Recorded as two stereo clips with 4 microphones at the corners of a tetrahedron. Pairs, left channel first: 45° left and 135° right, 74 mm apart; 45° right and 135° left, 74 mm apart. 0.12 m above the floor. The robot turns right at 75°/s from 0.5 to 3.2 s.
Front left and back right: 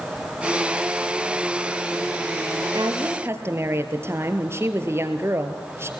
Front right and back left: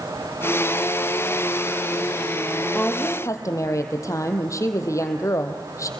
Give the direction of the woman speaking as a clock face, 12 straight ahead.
4 o'clock.